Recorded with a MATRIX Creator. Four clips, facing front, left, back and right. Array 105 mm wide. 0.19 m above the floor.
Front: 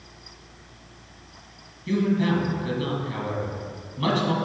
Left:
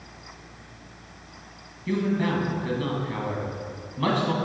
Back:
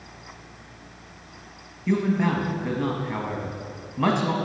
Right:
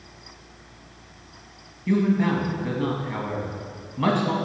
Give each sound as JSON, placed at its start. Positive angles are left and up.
{"t": 1.9, "sound": "a man speaking", "azimuth_deg": -160, "distance_m": 1.3}